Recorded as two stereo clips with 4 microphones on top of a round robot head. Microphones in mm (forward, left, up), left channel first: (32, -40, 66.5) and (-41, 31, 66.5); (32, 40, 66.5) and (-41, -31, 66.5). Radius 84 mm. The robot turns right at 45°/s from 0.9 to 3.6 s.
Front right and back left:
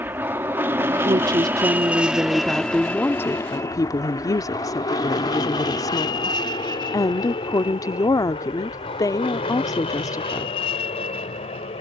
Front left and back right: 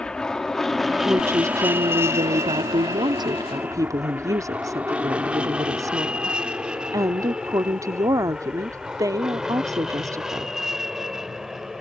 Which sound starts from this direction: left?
An aircraft, at 0.0 s.